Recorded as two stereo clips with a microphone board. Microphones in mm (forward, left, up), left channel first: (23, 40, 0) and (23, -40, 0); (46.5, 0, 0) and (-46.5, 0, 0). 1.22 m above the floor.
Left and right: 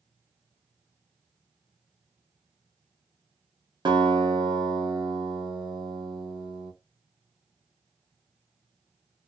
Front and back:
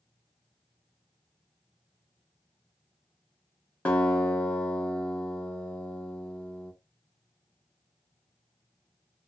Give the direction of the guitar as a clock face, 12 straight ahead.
2 o'clock.